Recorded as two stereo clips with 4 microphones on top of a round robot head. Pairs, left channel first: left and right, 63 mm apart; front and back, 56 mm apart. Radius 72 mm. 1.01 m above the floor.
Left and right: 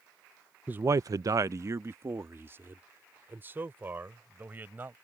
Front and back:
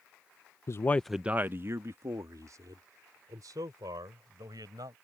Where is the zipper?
No zipper in this recording.